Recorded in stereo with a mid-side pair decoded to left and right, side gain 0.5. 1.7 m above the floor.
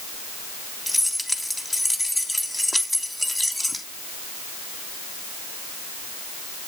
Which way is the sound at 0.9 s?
5° left.